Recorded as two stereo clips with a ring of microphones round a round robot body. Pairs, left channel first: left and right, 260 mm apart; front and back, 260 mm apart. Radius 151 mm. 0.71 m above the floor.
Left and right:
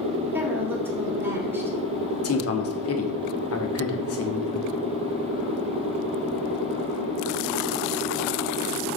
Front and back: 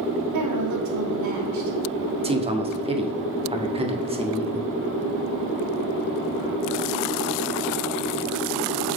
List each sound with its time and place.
0.3 s a woman speaking: 170° right, 2.5 m
2.2 s a man speaking: 115° left, 1.5 m